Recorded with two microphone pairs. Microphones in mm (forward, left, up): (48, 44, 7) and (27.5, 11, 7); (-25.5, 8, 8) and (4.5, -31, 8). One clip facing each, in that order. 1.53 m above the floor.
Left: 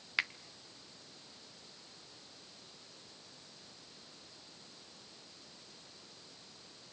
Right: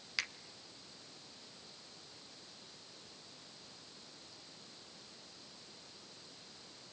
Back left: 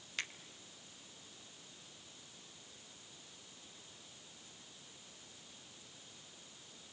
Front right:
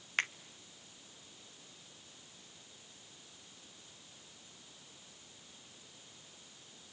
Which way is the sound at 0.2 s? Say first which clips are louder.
Left 5 dB, front right 8 dB; 5° right.